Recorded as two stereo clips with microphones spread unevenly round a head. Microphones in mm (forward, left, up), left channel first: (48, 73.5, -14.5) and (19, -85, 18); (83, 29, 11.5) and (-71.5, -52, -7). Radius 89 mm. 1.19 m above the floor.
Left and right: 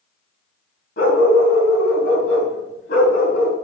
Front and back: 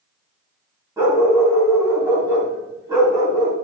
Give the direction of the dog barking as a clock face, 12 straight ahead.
8 o'clock.